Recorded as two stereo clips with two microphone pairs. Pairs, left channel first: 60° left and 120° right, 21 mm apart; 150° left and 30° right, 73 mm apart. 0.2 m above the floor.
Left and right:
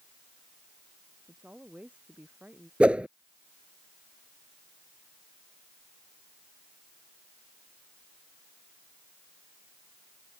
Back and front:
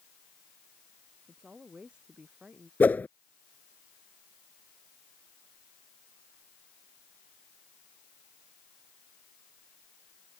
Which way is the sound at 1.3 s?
110° right.